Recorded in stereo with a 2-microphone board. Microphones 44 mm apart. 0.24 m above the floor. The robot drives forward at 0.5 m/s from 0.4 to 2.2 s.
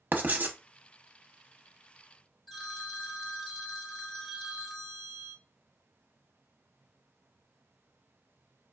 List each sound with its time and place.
0.1 s writing: 45° right (ahead or behind), 0.7 m; by 0.6 s 40° right (ahead or behind), 0.8 m
2.5 s a phone ringing: centre (ahead or behind), 0.7 m